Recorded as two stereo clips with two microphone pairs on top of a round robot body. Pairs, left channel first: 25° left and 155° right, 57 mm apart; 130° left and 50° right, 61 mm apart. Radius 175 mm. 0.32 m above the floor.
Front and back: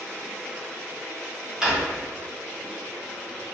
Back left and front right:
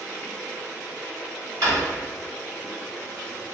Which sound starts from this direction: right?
A drawer, at 1.6 s.